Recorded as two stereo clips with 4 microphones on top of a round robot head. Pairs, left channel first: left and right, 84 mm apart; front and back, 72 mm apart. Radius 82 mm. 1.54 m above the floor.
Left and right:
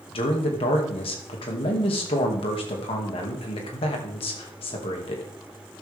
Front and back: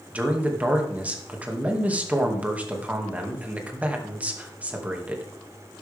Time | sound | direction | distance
0.1 | a man speaking | 110° left | 2.5 m